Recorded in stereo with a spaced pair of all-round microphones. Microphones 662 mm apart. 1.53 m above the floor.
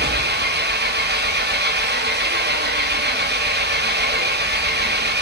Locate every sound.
0.0 s an engine running: 15° right (ahead or behind), 0.7 m